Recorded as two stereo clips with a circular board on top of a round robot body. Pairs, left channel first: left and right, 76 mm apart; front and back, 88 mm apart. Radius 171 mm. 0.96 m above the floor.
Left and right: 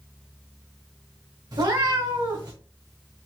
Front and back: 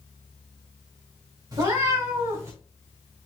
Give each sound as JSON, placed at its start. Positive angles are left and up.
{"t": 1.5, "sound": "a cat meowing", "azimuth_deg": -130, "distance_m": 1.5}